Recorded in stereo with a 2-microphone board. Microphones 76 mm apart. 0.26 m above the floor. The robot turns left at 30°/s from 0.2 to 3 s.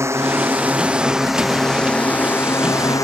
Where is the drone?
140° right; by 3.0 s 135° left.